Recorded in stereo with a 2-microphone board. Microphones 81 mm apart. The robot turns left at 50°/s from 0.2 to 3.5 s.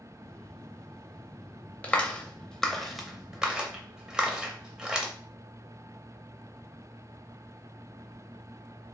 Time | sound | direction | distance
1.8 | a clap | 15° left (ahead or behind) | 0.7 m